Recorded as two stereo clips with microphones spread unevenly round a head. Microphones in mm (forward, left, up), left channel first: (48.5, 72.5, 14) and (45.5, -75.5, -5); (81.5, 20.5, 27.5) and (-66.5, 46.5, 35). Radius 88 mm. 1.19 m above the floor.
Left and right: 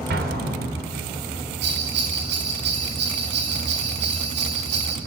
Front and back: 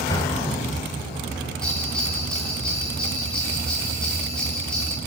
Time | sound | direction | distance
0.1 | an explosion | 80° right | 3 m
1.6 | a bell | 95° right | 8.5 m